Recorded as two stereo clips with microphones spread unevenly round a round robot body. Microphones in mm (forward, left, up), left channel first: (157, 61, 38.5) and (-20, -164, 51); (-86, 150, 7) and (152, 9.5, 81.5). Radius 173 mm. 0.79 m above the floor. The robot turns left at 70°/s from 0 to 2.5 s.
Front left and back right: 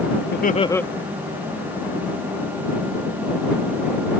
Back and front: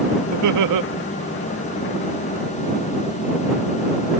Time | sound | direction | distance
0.3 | laughter | 5° left | ?